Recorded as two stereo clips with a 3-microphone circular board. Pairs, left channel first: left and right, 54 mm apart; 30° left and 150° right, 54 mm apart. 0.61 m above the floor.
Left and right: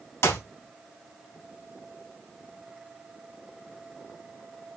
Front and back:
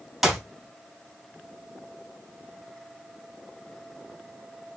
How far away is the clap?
About 3.5 m.